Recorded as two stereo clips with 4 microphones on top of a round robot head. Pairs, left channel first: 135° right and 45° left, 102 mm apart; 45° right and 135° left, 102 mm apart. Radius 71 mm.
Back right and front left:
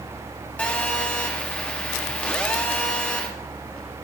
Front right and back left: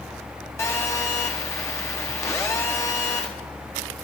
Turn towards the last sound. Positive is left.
turn(degrees=-75)